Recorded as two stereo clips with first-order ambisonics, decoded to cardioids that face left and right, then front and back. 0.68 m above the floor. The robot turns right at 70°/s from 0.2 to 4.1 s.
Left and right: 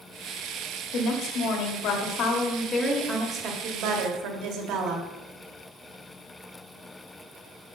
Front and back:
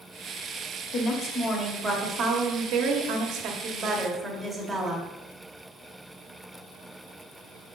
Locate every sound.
0.9 s a woman speaking: 45° left, 1.2 m; by 5.1 s 95° right, 1.2 m